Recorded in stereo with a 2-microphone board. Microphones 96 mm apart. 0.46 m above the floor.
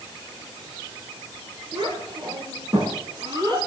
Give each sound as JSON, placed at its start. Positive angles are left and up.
{"t": 1.7, "sound": "a child speaking", "side_deg": -50, "distance_m": 5.5}